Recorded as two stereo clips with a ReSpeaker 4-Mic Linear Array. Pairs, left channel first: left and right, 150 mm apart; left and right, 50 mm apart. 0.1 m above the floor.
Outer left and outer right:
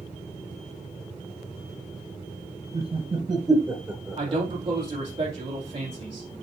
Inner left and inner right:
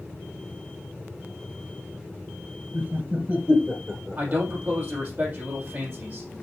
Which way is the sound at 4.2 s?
35° right (ahead or behind).